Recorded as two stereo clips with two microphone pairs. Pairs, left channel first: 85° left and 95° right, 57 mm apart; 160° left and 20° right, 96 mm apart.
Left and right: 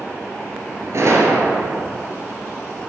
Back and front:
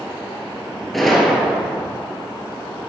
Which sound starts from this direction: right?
A gunshot, at 0.9 s.